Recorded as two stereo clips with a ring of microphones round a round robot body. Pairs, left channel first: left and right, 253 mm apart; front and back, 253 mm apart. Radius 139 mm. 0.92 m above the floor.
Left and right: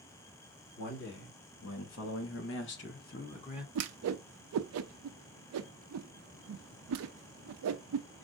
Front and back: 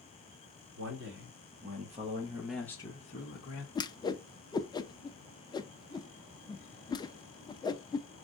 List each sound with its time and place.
0.8 s a man speaking: 135° left, 2.5 m; by 3.6 s 25° left, 1.3 m
3.8 s a whoosh: 75° right, 0.5 m